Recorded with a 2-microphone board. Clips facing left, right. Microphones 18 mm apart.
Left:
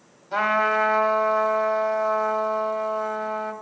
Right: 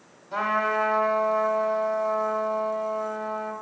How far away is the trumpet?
About 1.2 m.